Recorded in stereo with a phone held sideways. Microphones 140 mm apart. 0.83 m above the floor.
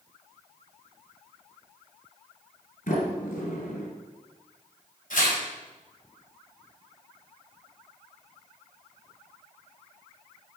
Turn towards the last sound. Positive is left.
turn(degrees=70)  # may be behind; listen again after turning